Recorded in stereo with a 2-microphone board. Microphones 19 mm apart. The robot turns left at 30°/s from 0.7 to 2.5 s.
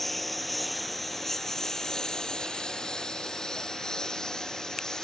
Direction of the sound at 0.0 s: 10° left (ahead or behind).